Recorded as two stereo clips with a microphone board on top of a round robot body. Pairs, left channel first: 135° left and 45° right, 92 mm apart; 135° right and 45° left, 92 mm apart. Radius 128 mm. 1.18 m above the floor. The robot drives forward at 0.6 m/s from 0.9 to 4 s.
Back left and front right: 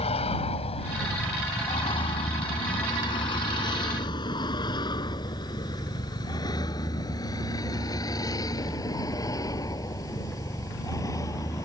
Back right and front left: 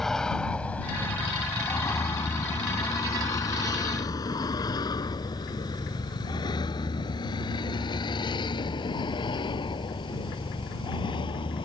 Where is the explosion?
No explosion in this recording.